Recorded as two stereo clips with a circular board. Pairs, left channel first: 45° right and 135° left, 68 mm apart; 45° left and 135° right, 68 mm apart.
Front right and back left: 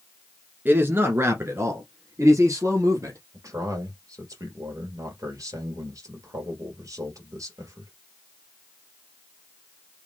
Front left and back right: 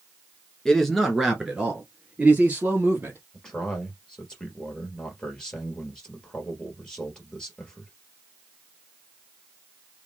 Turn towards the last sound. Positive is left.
turn(degrees=120)